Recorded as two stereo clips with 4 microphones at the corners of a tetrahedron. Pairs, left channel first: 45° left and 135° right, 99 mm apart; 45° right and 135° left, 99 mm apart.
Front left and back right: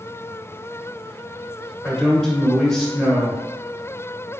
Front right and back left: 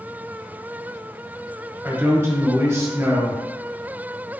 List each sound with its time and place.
1.8 s a man speaking: 125° left, 1.6 m